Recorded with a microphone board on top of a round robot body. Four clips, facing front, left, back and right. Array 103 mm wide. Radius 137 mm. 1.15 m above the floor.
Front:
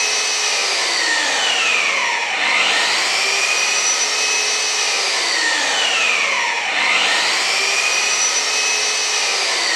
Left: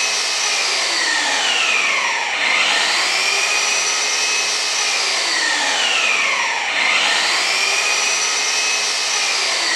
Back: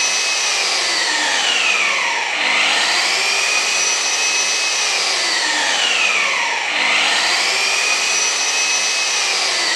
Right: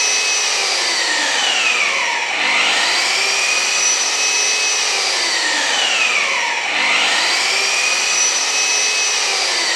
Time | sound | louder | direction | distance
0.0 | an engine running | right 1 dB, even | 80° right | 0.9 m